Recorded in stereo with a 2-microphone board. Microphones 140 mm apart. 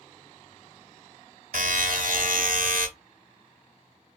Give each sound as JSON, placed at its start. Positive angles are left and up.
{"t": 1.5, "sound": "a buzzer", "side_deg": -70, "distance_m": 0.8}